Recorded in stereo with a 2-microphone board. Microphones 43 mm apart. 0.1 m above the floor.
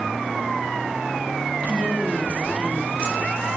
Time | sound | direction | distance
1.6 | a woman speaking | 45° right (ahead or behind) | 3.5 m